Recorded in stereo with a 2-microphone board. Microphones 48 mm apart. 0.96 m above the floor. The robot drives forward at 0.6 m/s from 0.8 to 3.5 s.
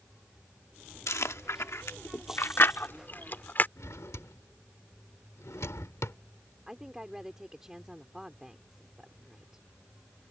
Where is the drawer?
90° left.